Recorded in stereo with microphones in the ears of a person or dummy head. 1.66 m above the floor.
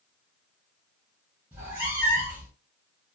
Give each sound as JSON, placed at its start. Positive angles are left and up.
{"t": 1.5, "sound": "a cat meowing", "side_deg": -15, "distance_m": 0.9}